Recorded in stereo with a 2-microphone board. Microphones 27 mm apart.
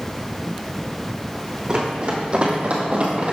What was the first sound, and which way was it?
Running footsteps, 25° right (ahead or behind).